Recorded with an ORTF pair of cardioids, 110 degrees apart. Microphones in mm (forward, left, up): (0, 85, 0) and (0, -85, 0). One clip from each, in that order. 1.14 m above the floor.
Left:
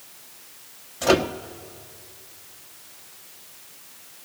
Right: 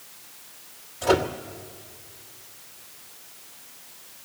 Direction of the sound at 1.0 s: 40° left.